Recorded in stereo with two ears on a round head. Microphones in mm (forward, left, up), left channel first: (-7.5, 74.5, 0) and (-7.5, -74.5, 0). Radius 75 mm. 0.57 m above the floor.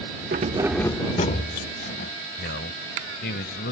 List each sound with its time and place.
0.3 s keys jangling: 50° right (ahead or behind); by 2.1 s 65° left (ahead or behind)
2.4 s a man speaking: 65° left (ahead or behind)